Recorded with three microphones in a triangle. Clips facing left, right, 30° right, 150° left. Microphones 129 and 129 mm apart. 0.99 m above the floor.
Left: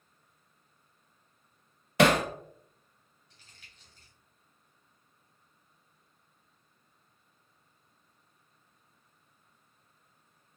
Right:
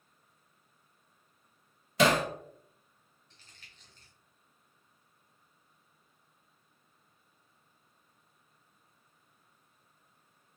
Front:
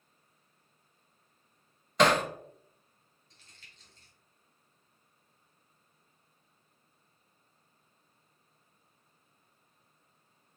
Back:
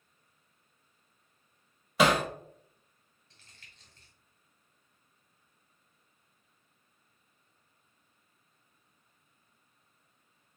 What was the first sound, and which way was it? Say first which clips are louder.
Hammering: left 3 dB, even; 65° left.